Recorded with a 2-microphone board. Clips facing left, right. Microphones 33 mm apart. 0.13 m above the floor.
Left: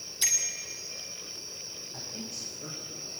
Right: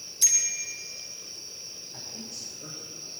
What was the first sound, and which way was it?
A bicycle bell, 25° left (ahead or behind).